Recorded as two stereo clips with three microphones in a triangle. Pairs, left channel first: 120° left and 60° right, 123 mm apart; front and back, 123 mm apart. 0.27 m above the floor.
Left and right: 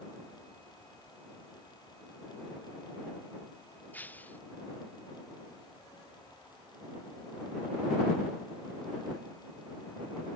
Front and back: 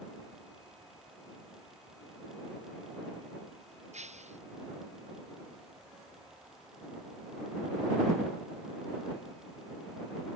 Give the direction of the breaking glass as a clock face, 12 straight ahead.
5 o'clock.